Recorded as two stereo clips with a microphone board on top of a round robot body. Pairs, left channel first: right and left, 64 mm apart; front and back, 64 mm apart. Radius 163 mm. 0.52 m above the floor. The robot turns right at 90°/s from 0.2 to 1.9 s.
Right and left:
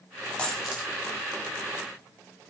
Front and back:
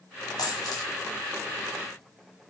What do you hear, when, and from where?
0.4 s a dropped coin: 15° right, 1.1 m; by 0.9 s 35° left, 1.1 m